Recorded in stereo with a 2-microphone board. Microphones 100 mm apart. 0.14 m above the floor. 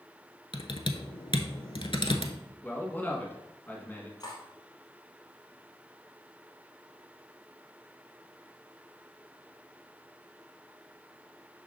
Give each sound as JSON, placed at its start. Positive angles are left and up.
{"t": 0.5, "sound": "typing on a keyboard", "side_deg": 60, "distance_m": 0.7}
{"t": 2.6, "sound": "a man speaking", "side_deg": 20, "distance_m": 1.3}
{"t": 4.2, "sound": "cutlery clinking", "side_deg": 45, "distance_m": 2.0}